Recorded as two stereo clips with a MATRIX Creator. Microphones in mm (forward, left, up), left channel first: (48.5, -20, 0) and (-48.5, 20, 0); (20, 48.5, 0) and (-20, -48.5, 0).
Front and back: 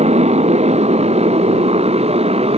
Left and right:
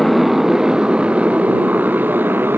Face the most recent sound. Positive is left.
turn(degrees=180)